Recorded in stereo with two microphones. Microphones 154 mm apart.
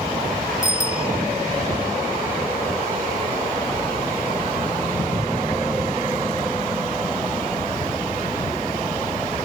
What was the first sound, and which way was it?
A bicycle bell, 50° left (ahead or behind).